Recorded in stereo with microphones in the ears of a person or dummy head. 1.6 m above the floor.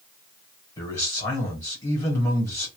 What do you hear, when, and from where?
0.8 s a man speaking: 25° left (ahead or behind), 1.1 m